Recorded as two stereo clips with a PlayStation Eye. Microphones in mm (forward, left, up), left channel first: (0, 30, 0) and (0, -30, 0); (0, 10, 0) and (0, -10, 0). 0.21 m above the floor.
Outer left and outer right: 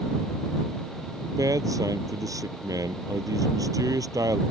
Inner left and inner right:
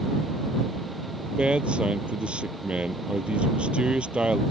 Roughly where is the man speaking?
Right.